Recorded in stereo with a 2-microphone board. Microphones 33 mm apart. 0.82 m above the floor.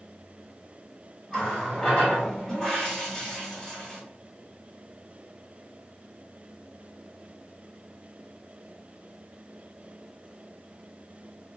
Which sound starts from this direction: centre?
A running tap, at 1.3 s.